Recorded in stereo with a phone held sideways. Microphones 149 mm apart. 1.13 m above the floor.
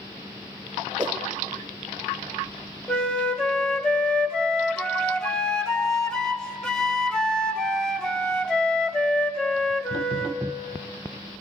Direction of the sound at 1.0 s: 30° right (ahead or behind).